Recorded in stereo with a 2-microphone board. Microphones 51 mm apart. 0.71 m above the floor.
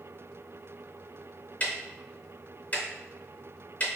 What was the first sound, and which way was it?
Ticking, 25° left (ahead or behind).